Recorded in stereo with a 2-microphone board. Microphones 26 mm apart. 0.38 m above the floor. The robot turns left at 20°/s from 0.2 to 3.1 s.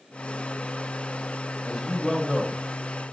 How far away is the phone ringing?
No phone ringing in this recording.